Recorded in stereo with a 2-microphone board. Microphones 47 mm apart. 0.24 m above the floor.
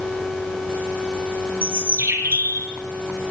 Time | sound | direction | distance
1.6 | a bird | 50° right (ahead or behind) | 4.5 m